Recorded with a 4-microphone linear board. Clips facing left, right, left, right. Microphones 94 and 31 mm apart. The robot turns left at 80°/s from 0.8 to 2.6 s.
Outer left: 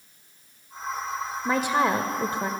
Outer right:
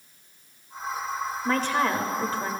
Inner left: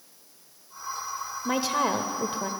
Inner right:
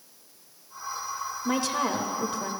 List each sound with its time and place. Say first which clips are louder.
1.4 s a woman speaking: outer left 2 dB, inner left 2 dB; 10° left (ahead or behind), 0.8 m; by 2.5 s 20° left (ahead or behind), 0.8 m